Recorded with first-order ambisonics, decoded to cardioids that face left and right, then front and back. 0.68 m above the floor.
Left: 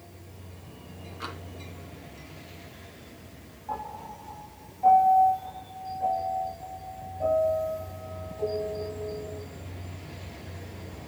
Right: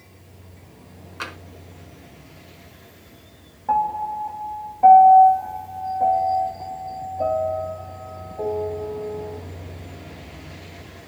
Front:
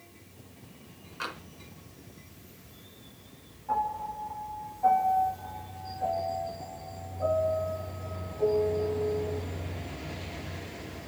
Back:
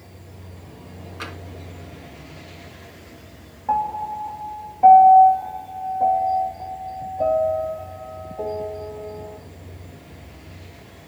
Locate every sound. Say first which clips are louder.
1.2 s tapping: right 6 dB, back 2 dB; 100° right, 5 m
3.7 s a piano: right 15 dB, back 7 dB; 135° right, 3 m